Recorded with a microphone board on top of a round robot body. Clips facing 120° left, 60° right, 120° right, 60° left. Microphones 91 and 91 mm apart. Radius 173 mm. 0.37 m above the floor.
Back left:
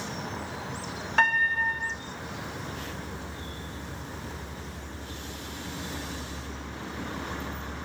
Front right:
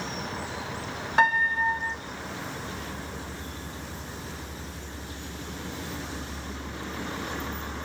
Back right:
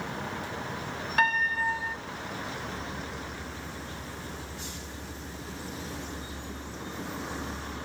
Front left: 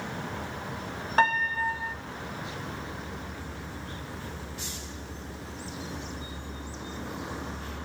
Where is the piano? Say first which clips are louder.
Front right 2 dB, front left 2 dB; 15° left, 2.5 m.